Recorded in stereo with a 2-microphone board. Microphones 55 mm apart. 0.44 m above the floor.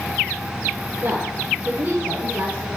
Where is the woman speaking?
35° right (ahead or behind), 9 m; by 2.7 s 25° right (ahead or behind), 10.5 m.